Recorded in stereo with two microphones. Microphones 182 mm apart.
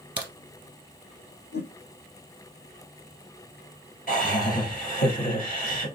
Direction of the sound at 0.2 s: 25° right (ahead or behind).